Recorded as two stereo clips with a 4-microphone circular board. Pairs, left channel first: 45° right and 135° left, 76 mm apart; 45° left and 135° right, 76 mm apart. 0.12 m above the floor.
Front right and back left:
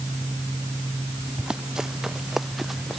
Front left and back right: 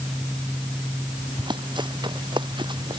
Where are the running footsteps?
145° right; by 3.0 s 135° right.